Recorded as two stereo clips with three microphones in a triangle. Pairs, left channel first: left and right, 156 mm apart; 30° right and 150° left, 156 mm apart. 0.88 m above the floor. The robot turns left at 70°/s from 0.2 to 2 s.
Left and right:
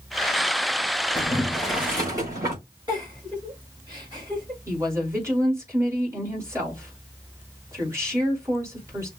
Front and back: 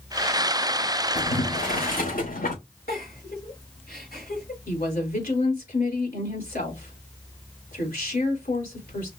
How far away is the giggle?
About 5 m.